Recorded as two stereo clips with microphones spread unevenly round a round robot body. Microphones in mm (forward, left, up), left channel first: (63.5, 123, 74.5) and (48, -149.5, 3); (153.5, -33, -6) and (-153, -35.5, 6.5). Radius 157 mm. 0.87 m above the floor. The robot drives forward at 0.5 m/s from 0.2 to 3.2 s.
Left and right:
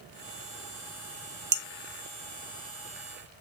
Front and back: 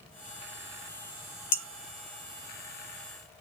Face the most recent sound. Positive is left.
turn(degrees=-95)